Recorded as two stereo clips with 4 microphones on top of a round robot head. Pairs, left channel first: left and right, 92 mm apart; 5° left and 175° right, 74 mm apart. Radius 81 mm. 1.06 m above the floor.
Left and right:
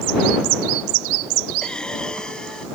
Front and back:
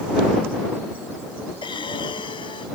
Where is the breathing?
5° left.